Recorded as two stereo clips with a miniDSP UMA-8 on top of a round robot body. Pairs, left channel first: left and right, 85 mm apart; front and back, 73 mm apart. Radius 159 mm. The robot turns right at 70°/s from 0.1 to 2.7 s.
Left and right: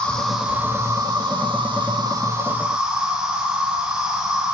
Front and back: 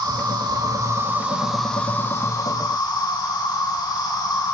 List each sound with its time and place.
0.0 s an insect: 170° left, 9 m; by 4.5 s 10° right, 9 m